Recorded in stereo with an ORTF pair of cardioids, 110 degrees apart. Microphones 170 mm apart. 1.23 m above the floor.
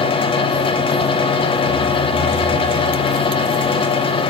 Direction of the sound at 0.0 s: 30° left.